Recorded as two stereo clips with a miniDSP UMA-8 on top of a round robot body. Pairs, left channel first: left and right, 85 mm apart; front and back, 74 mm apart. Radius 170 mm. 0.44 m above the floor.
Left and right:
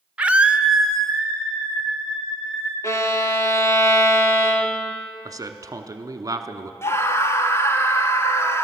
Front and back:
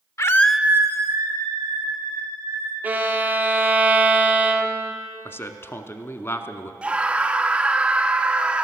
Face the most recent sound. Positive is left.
turn(degrees=115)